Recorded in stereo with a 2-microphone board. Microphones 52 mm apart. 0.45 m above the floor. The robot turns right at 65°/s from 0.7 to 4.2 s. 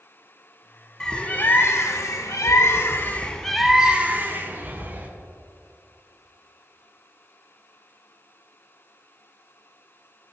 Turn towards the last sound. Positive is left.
turn(degrees=-140)